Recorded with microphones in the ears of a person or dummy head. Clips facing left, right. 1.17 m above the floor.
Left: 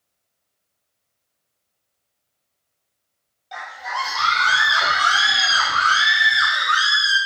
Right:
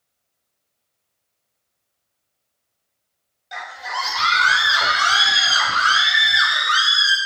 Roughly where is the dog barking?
I don't hear a dog barking.